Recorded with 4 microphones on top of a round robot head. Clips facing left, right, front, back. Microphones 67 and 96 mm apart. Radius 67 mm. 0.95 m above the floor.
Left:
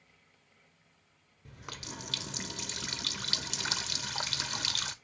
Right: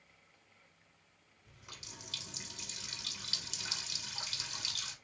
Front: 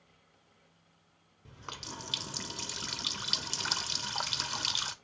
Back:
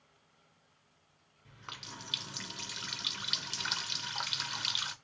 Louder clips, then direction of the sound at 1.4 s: Left 10 dB, front 4 dB; 60° left.